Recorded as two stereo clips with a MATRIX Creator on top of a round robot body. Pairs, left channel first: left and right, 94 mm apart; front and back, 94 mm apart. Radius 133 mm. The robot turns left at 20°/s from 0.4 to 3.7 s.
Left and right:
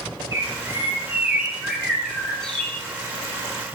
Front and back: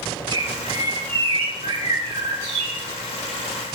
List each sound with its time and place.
0.3 s a bird: 145° right, 5 m; by 2.8 s 165° left, 5 m